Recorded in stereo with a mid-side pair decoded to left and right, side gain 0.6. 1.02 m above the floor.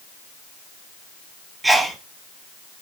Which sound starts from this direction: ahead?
A sneeze, at 1.6 s.